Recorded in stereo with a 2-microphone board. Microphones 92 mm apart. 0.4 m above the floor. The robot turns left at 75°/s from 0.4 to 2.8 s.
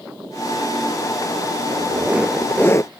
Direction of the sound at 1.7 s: 130° right.